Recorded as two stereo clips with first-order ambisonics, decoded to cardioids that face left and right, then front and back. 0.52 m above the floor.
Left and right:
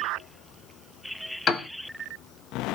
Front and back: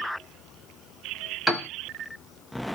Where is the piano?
90° left, 1.1 m.